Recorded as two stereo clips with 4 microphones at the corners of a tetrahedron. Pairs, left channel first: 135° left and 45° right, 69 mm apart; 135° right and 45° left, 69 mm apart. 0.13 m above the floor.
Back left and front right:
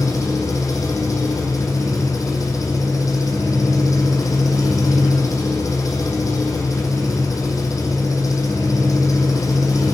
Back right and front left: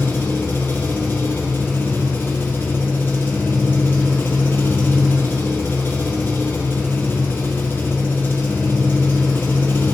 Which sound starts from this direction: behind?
An engine running, at 0.0 s.